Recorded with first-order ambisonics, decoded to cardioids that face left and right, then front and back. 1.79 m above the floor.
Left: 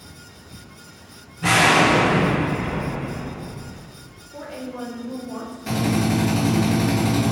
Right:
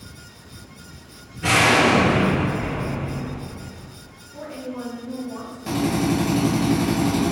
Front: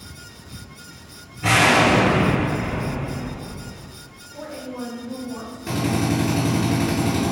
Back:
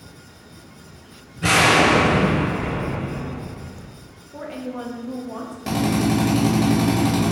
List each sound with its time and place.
1.4 s an explosion: 175° right, 1.9 m
4.3 s a woman speaking: 165° left, 0.7 m
5.7 s a drill: 175° right, 1.4 m